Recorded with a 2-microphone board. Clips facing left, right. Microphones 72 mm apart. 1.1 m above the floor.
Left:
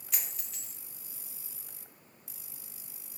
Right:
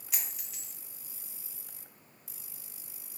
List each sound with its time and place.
0.1 s a dropped coin: 5° right (ahead or behind), 0.6 m